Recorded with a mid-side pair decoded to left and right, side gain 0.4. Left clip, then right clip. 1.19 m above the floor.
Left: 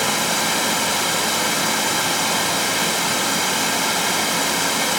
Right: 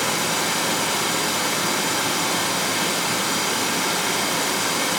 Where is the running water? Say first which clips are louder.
Left 2 dB; 40° left, 1.2 m.